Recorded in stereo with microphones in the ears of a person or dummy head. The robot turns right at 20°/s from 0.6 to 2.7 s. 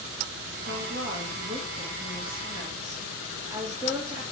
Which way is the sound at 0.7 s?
60° right.